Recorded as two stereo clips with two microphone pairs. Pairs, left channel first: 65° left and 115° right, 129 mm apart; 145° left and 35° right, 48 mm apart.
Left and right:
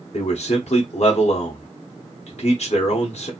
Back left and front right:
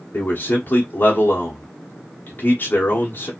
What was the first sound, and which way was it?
A man speaking, 95° left.